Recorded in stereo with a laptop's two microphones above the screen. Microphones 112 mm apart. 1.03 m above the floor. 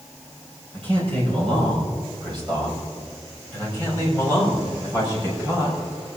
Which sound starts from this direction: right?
A man speaking, at 0.7 s.